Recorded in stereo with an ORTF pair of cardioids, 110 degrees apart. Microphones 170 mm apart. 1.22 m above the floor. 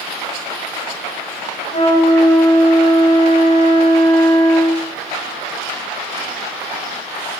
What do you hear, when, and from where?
1.7 s a flute: 40° left, 3.5 m